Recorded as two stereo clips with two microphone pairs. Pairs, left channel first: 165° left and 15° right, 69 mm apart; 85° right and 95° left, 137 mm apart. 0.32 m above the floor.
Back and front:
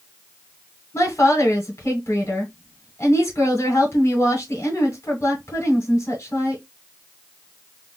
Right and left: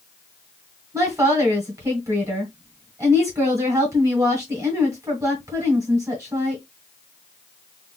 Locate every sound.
0.9 s a woman speaking: 150° left, 1.3 m